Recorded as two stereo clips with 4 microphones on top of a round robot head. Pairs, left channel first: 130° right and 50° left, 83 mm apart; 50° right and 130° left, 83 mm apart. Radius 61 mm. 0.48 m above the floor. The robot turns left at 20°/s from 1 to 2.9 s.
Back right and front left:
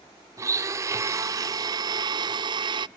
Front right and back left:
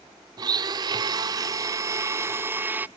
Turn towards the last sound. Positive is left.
turn(degrees=65)